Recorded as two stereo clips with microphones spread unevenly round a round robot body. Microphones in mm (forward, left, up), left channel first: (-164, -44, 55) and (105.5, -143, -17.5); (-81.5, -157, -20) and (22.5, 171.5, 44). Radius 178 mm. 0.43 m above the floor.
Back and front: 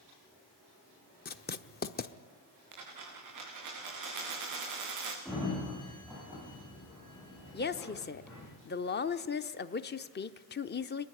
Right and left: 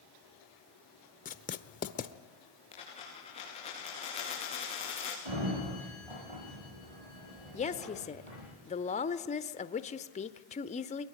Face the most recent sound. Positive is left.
turn(degrees=-145)